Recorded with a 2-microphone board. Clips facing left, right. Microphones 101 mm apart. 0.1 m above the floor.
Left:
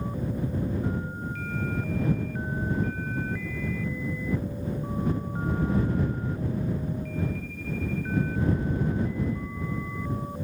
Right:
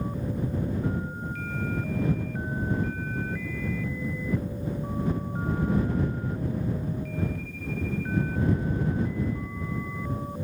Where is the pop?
I don't hear a pop.